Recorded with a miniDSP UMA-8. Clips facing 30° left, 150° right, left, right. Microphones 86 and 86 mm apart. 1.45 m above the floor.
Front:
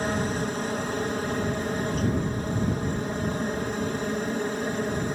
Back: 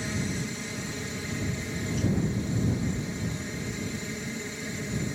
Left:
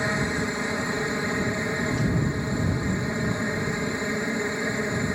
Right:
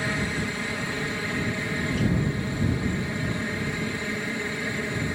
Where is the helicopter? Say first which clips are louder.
Front 6 dB, left 2 dB; 25° left.